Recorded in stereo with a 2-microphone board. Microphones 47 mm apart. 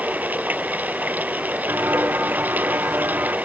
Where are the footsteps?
50° right (ahead or behind); by 3.4 s 45° right (ahead or behind).